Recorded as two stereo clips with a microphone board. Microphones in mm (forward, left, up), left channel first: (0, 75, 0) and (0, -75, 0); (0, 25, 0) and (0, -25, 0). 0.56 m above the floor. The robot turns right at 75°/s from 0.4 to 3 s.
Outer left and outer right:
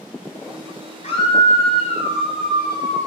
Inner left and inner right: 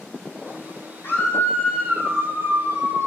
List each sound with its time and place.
1.0 s a scream: 130° left, 3.5 m; by 3.1 s 85° right, 3.5 m